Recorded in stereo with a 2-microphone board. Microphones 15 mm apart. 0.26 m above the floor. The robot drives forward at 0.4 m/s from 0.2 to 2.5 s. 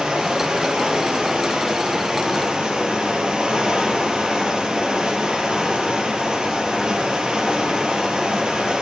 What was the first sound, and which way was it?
Running water, 80° right.